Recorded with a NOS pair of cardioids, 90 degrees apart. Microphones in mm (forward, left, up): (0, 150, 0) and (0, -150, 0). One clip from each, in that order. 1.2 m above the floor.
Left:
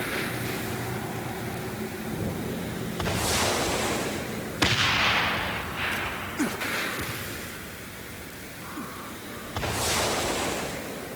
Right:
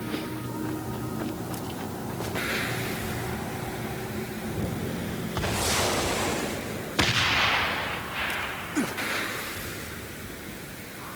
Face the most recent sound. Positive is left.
No sound to turn to.